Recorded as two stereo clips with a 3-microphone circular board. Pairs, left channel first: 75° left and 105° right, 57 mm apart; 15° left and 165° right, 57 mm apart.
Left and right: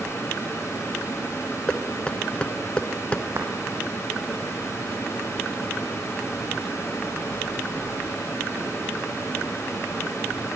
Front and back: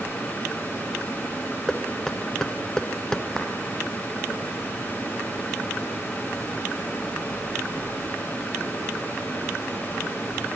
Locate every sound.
1.7 s knocking: 75° left, 1.0 m
3.4 s a clap: 60° right, 4.5 m